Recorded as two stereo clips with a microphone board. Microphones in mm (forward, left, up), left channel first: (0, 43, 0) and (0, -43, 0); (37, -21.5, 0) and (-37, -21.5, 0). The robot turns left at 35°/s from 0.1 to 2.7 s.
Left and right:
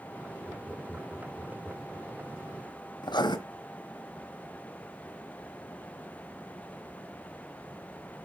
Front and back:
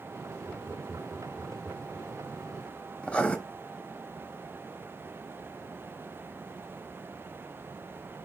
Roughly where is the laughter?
Behind.